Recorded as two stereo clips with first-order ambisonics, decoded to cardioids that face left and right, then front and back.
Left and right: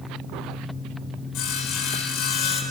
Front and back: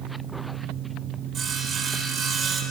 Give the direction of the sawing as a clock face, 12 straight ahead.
8 o'clock.